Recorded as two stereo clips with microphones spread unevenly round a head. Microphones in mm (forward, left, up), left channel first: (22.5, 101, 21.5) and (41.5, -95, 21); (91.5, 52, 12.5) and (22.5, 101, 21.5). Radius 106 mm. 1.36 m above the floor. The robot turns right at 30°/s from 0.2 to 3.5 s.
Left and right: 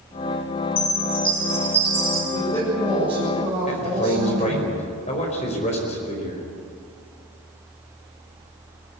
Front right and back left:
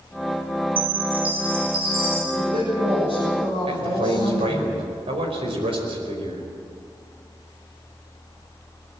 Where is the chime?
150° left, 7.5 m; by 2.2 s 170° right, 7.5 m.